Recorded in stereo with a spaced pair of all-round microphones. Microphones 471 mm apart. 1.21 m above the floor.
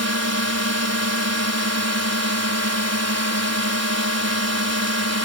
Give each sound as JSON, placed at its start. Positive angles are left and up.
{"t": 0.0, "sound": "a drone", "side_deg": -35}